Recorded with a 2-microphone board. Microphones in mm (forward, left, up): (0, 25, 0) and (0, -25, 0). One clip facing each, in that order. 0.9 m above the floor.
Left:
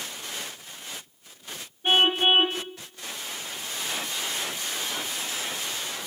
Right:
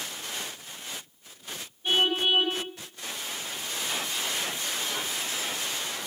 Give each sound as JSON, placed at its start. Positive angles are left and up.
{"t": 1.8, "sound": "a car horn", "side_deg": 40, "distance_m": 3.5}